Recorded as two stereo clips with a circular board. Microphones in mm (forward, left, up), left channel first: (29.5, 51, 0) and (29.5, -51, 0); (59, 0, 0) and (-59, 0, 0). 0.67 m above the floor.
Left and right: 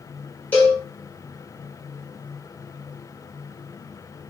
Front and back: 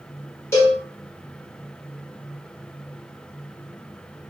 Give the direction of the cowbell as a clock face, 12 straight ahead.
11 o'clock.